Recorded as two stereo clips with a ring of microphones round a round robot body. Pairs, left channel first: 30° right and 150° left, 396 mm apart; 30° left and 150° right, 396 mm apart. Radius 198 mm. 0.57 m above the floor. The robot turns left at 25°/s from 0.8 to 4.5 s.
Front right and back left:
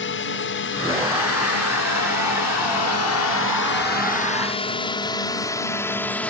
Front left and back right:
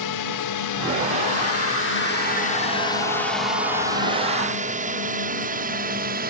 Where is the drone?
20° left; by 6.3 s 115° right.